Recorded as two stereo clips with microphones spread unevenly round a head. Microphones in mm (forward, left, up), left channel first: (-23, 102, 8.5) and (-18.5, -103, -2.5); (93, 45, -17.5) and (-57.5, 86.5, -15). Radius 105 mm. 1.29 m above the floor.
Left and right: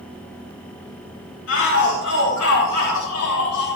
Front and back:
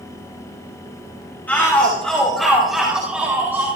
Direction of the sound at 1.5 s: 65° left.